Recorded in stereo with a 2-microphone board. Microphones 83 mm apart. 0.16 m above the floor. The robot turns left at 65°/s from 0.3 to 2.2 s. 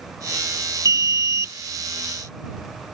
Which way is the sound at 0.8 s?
80° right.